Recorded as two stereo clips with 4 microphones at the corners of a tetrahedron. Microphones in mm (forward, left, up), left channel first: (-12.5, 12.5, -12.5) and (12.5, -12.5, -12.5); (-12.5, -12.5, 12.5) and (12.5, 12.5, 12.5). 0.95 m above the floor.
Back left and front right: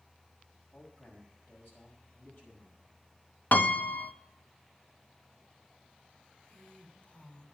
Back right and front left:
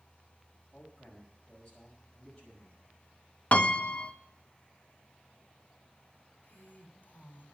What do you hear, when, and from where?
0.7 s a man speaking: 155° left, 5.5 m
3.5 s a piano: 170° left, 0.6 m
6.4 s a woman speaking: 175° right, 3.5 m